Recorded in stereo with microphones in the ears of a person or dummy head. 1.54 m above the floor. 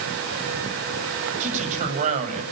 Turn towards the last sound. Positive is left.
turn(degrees=-45)  # may be behind; listen again after turning